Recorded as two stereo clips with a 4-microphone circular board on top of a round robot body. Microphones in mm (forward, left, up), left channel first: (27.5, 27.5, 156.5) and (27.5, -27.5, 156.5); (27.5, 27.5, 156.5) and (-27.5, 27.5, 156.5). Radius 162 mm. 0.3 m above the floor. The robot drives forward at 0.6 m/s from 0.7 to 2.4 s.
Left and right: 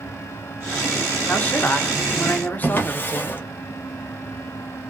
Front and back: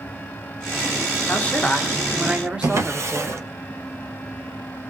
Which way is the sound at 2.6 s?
140° left.